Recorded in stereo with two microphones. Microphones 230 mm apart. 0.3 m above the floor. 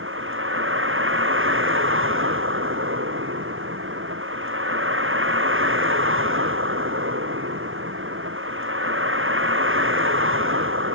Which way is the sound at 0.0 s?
60° right (ahead or behind).